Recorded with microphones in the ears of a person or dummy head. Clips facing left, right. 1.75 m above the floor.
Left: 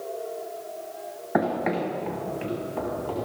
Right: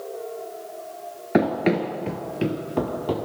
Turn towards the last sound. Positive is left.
turn(degrees=-60)  # may be behind; listen again after turning